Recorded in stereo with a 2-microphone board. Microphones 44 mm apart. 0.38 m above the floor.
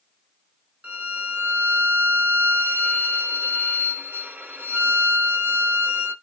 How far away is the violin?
About 1.1 m.